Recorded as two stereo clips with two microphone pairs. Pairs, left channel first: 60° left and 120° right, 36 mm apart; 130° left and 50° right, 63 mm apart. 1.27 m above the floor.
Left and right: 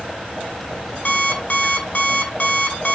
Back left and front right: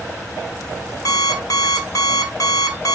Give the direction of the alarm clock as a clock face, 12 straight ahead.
8 o'clock.